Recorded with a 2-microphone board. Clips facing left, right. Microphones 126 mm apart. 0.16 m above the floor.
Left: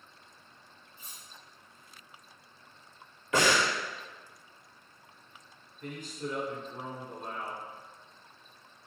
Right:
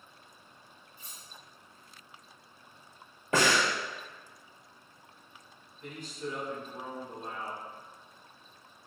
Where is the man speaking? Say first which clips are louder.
Left 1 dB; 45° left (ahead or behind), 1.6 m.